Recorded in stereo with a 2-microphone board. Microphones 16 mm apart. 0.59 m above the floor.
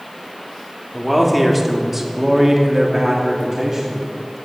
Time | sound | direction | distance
0.9 | a man speaking | centre (ahead or behind) | 1.4 m